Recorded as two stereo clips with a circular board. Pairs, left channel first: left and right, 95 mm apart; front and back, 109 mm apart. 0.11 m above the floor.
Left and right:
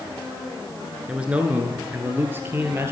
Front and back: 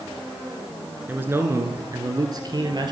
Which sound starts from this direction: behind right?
A man speaking, at 1.1 s.